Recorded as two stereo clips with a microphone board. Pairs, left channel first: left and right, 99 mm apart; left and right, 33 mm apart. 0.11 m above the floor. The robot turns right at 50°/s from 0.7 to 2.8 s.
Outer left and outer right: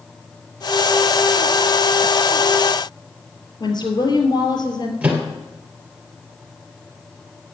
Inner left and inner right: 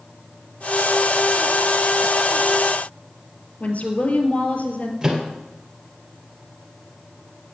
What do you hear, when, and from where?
3.6 s a woman speaking: 50° left (ahead or behind), 2 m
5.0 s a microwave: 15° right (ahead or behind), 2 m